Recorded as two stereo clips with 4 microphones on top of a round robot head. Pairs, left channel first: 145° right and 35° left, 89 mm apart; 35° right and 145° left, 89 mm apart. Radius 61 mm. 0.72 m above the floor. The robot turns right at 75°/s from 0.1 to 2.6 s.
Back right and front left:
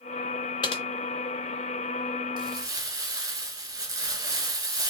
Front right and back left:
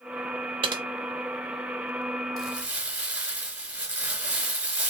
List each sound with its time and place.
0.6 s typing on a keyboard: 175° left, 0.6 m; by 0.8 s 170° right, 0.6 m
2.4 s crumpling: 55° left, 2 m; by 4.9 s 70° left, 2 m